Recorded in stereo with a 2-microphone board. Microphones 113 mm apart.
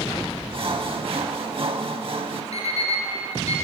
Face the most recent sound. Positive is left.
turn(degrees=70)  # may be behind; listen again after turning